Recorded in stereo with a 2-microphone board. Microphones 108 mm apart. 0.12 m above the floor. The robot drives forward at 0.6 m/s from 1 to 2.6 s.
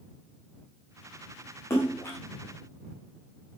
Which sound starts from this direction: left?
A splash, at 1.7 s.